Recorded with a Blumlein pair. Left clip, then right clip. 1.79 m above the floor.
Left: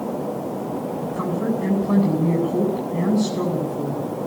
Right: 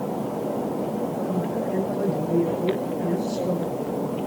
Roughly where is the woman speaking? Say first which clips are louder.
Left 2 dB; ahead left.